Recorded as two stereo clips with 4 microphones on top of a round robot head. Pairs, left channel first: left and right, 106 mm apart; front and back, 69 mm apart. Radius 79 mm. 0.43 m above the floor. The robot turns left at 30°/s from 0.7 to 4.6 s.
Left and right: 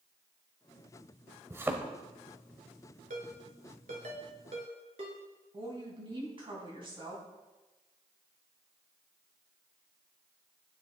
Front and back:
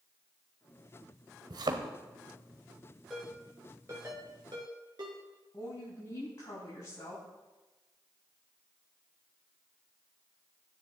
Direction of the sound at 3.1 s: 90° right.